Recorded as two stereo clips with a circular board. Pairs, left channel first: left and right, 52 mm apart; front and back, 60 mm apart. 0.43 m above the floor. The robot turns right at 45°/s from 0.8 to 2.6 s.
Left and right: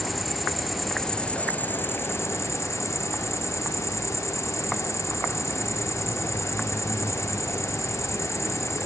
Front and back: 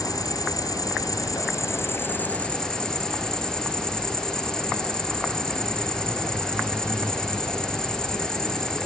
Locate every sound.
0.0 s an insect: straight ahead, 1.3 m; by 8.9 s 80° left, 1.3 m